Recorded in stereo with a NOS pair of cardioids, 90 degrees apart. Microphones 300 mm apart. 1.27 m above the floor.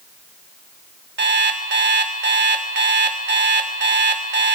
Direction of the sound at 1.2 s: 35° right.